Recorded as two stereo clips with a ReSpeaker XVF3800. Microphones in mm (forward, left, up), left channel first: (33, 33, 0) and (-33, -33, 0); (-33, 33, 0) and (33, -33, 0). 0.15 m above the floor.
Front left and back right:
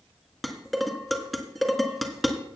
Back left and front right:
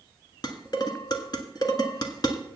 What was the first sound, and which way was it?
Dishes clattering, 135° left.